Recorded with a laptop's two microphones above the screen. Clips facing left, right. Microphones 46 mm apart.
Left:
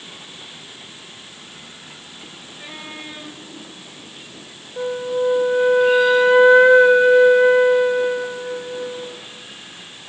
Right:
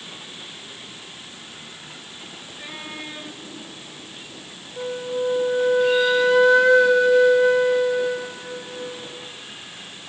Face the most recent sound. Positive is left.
turn(degrees=25)  # may be behind; listen again after turning